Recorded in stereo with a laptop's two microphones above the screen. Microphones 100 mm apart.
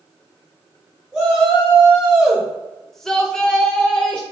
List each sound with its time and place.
1.1 s a shout: 10° right (ahead or behind), 1.2 m; by 4.2 s 10° left (ahead or behind), 1.3 m